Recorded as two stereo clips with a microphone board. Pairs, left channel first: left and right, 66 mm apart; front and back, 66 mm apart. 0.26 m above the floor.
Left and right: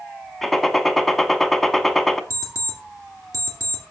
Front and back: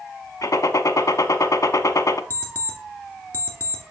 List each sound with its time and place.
0.4 s a gunshot: 5° left, 0.6 m
2.3 s an alarm clock: 55° right, 2 m